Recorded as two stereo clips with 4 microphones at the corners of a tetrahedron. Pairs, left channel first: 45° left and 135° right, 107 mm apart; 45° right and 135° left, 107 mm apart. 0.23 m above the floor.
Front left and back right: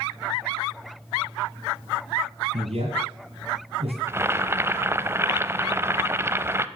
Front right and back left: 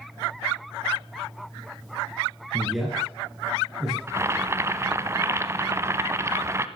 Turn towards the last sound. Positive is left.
turn(degrees=175)